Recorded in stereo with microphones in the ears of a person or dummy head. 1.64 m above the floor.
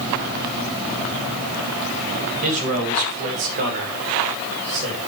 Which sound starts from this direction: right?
A man speaking, at 2.4 s.